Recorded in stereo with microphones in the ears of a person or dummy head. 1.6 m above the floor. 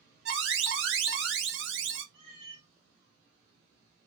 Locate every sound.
0.2 s an alarm: 55° right (ahead or behind), 0.9 m
2.1 s a cat meowing: 30° right (ahead or behind), 1.4 m